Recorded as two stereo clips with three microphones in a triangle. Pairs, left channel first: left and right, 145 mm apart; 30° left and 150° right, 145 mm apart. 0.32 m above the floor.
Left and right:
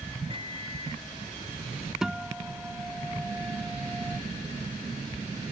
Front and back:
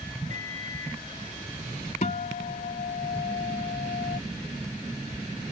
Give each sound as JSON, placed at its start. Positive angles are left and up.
{"t": 0.3, "sound": "a microwave", "azimuth_deg": -135}
{"t": 2.0, "sound": "a guitar", "azimuth_deg": -5}